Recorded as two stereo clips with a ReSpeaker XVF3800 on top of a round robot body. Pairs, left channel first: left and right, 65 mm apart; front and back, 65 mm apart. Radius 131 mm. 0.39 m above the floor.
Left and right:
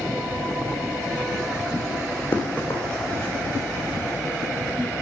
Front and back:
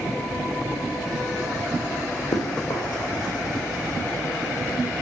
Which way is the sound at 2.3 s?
30° left.